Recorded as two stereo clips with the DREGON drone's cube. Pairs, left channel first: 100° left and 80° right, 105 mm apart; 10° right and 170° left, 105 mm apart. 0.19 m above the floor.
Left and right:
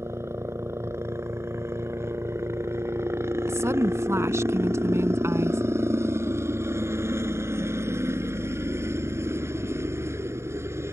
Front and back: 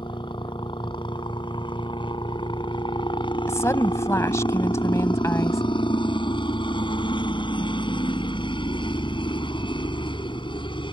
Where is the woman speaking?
45° right.